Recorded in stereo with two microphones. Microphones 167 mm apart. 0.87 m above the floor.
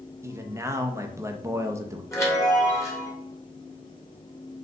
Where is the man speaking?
15° right (ahead or behind), 0.5 m.